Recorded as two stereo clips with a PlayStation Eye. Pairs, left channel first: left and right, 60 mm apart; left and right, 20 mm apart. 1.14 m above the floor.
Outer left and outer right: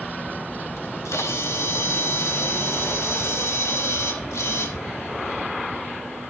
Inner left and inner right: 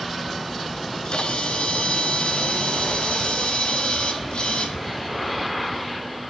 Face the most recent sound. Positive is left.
turn(degrees=50)  # may be behind; listen again after turning